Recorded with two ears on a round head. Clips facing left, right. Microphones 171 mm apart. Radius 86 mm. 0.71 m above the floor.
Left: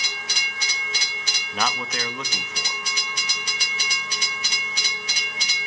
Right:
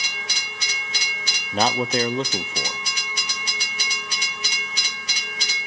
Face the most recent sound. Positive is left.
turn(degrees=-25)  # may be behind; listen again after turning